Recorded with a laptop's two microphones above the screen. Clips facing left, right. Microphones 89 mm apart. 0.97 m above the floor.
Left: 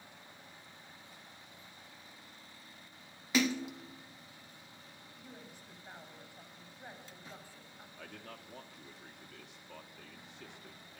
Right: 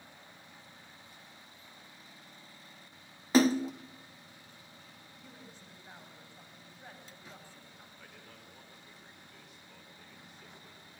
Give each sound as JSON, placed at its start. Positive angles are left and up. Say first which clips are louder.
{"t": 3.3, "sound": "a splash", "louder": "right 7 dB", "side_deg": -35, "distance_m": 0.5}
{"t": 5.2, "sound": "a woman speaking", "louder": "left 1 dB", "side_deg": 10, "distance_m": 4.5}
{"t": 8.0, "sound": "a man speaking", "louder": "left 9 dB", "side_deg": 70, "distance_m": 2.5}